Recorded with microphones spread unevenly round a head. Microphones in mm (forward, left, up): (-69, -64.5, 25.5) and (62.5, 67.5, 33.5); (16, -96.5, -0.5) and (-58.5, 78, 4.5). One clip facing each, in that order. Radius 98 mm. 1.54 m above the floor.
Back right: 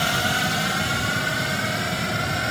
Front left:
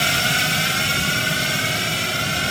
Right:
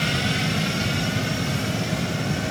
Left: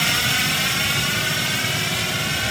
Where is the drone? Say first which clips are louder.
Even, right 3 dB; 100° left; by 2.5 s 95° left.